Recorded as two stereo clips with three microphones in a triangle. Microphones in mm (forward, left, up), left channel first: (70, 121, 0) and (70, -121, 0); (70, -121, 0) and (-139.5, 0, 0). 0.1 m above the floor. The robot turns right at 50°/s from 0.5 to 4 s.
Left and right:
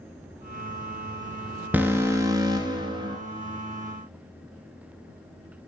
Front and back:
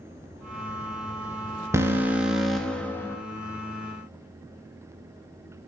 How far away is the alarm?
About 0.9 m.